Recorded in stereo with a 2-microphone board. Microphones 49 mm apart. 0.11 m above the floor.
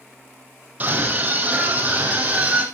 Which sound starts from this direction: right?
A scream, at 0.8 s.